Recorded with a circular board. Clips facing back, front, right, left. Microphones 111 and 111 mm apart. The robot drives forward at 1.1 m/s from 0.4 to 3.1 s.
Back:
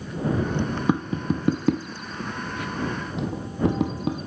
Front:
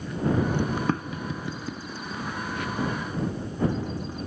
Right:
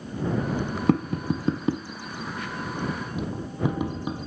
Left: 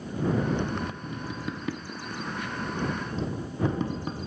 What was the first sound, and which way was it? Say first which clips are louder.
Tapping: back 5 dB, right 13 dB; 100° right.